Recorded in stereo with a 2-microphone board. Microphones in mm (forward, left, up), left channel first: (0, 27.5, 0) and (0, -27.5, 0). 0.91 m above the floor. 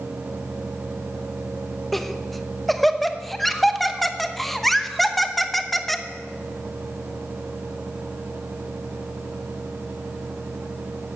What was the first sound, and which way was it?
Laughter, centre (ahead or behind).